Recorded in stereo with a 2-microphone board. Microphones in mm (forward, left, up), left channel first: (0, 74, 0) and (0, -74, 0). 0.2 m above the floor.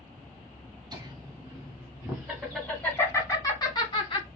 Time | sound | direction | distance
0.9 | laughter | 30° right (ahead or behind) | 1.5 m